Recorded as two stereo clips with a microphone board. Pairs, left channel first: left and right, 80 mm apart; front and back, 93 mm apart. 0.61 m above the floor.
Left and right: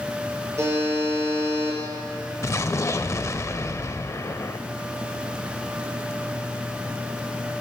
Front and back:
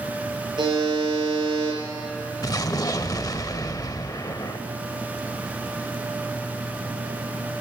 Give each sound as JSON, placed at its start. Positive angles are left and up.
{"t": 0.6, "sound": "a buzzer", "azimuth_deg": -145, "distance_m": 7.0}
{"t": 2.4, "sound": "an explosion", "azimuth_deg": 45, "distance_m": 0.5}